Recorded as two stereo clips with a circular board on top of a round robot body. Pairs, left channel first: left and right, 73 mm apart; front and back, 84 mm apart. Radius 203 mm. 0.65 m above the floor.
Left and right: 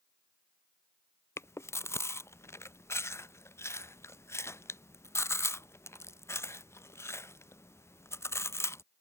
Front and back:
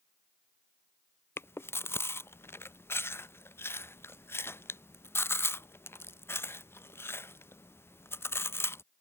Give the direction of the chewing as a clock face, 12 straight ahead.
10 o'clock.